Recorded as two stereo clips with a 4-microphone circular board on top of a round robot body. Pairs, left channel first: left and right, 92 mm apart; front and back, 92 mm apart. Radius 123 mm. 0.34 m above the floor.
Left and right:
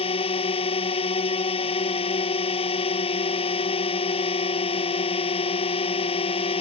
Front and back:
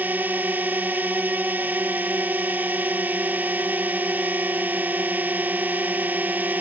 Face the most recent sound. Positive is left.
turn(degrees=105)